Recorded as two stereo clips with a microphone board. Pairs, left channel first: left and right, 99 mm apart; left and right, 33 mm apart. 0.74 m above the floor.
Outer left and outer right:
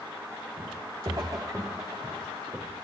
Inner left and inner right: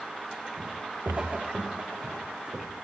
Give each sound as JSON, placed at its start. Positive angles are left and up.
{"t": 0.6, "sound": "footsteps", "side_deg": -45, "distance_m": 4.5}